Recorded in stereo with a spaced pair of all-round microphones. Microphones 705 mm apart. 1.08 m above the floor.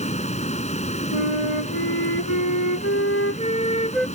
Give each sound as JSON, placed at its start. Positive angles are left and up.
{"t": 0.0, "sound": "a fan", "side_deg": 10}
{"t": 1.1, "sound": "a flute", "side_deg": -70}